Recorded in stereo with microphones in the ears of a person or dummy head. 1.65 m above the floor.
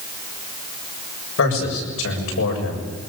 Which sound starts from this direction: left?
A man speaking, at 1.4 s.